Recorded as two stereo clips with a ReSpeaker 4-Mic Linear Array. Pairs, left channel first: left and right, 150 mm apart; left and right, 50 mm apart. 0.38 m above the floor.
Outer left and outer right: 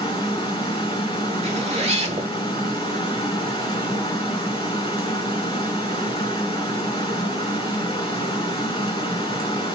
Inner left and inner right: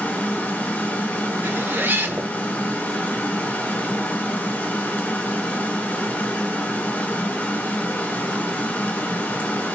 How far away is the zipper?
About 0.7 m.